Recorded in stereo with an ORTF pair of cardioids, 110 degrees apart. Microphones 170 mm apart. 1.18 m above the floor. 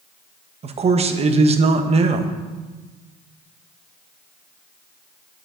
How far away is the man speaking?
About 1.0 m.